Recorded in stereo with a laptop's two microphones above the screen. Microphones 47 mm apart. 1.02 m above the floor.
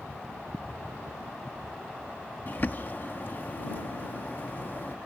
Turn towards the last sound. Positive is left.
turn(degrees=45)  # may be behind; listen again after turning